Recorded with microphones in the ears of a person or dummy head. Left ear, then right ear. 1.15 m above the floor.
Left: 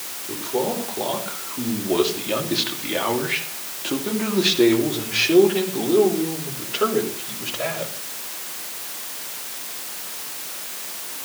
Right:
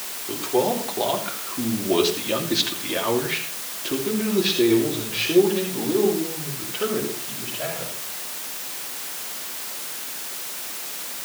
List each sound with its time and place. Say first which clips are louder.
0.3 s a man speaking: right 2 dB; 30° right (ahead or behind), 4 m; by 7.9 s 80° left, 5.5 m